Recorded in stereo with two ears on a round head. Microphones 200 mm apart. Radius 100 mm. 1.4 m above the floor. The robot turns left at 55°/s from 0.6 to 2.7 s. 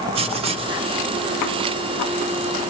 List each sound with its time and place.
0.1 s writing: 25° right (ahead or behind), 0.5 m; by 0.8 s 15° right (ahead or behind), 0.5 m